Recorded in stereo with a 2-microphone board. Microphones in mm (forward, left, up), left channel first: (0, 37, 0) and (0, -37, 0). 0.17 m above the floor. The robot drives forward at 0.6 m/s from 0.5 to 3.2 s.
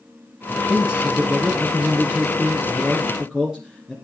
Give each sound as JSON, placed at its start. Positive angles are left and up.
{"t": 0.5, "sound": "a man speaking", "side_deg": -15, "distance_m": 1.2}